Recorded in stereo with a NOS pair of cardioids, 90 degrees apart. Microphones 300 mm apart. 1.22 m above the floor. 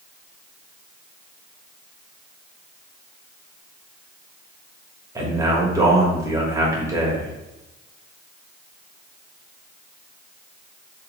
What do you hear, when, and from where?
5.2 s a man speaking: 10° right, 1.4 m